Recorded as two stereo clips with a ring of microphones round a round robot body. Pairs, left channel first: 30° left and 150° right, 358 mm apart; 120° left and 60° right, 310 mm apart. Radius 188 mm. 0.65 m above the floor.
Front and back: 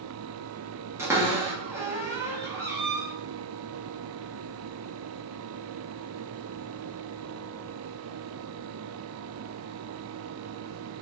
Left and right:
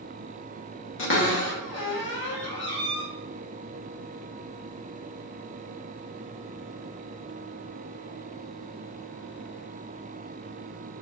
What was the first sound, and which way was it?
A cupboard door, 130° left.